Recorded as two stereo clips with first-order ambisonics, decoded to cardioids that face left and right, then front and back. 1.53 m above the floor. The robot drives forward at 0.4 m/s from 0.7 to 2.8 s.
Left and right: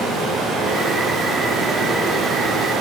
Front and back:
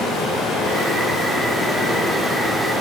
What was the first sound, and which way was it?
Running water, 45° right.